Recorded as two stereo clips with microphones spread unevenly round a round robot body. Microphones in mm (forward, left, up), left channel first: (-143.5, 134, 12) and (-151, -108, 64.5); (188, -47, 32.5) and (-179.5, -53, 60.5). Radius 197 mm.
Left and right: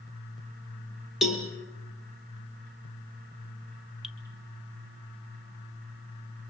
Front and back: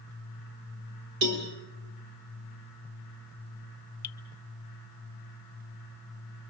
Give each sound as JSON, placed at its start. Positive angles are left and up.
{"t": 1.2, "sound": "a cowbell", "azimuth_deg": 180, "distance_m": 4.5}
{"t": 4.0, "sound": "dripping", "azimuth_deg": 20, "distance_m": 0.9}